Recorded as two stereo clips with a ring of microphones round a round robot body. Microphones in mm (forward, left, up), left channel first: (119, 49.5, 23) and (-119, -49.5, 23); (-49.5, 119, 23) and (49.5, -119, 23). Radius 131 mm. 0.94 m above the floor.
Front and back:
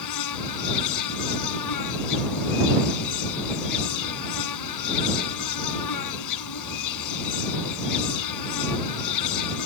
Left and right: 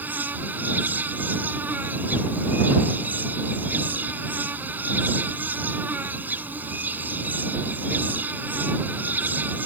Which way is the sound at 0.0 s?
15° left.